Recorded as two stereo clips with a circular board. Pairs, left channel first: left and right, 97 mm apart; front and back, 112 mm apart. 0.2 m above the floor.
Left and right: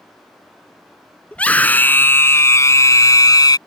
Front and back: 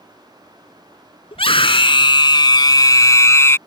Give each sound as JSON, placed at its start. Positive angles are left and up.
{"t": 1.3, "sound": "a scream", "azimuth_deg": 15}